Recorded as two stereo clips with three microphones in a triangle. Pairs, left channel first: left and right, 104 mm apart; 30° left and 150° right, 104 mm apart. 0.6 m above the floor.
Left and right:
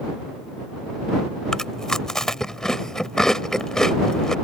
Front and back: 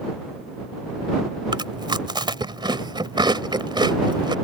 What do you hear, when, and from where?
1.5 s chewing: 175° left